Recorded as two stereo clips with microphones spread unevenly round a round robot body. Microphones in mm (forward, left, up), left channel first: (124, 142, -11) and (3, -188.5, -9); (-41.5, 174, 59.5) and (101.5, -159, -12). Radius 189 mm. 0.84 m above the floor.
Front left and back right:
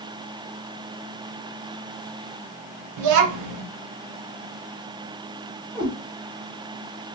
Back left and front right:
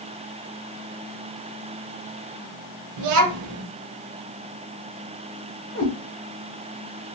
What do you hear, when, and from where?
3.0 s a child speaking: 80° right, 0.5 m
5.8 s a cat meowing: 170° left, 1.1 m